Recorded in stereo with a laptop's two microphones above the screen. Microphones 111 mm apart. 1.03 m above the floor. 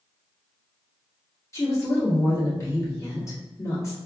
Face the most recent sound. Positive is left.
turn(degrees=25)  # may be behind; listen again after turning